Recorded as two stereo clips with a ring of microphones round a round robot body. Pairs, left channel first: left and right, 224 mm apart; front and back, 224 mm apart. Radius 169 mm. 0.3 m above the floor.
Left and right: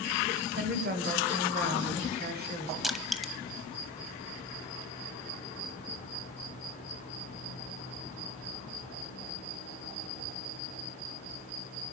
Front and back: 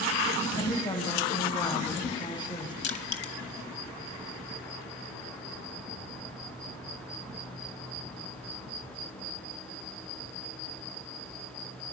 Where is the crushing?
Straight ahead, 1.0 m.